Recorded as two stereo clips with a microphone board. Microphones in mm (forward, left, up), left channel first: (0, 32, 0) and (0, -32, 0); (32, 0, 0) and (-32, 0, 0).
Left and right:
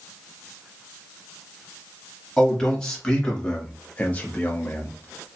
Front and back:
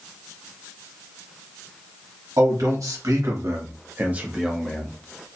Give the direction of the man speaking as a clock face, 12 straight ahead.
6 o'clock.